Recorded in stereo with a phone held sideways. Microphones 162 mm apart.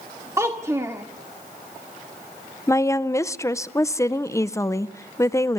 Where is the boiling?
No boiling in this recording.